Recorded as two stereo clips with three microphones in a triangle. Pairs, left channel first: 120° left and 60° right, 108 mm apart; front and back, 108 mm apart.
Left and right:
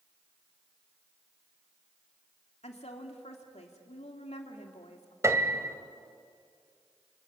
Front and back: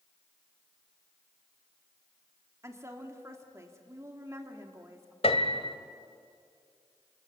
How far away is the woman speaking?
About 2.5 m.